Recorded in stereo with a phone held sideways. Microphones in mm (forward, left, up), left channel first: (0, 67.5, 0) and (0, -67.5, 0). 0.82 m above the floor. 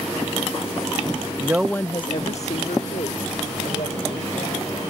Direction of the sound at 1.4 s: 30° right (ahead or behind).